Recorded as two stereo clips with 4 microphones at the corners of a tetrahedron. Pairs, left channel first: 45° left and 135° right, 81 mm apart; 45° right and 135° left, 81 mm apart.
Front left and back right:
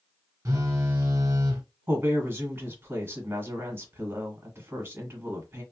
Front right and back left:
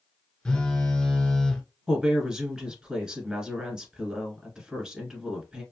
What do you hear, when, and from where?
0.5 s a phone buzzing: 120° right, 1.0 m
1.9 s a woman speaking: 155° right, 1.4 m